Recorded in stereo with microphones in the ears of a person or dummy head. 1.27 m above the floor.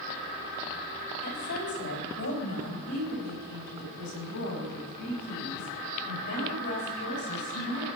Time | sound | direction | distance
1.2 | a woman speaking | 65° left (ahead or behind) | 5.5 m